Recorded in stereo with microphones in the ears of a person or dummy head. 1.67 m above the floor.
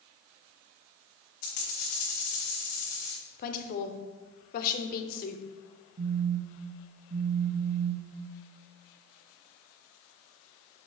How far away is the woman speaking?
About 0.8 m.